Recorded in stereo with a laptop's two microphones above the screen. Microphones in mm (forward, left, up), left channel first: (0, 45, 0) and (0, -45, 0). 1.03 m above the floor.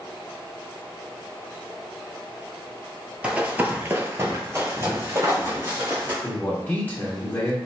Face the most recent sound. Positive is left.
turn(degrees=25)  # may be behind; listen again after turning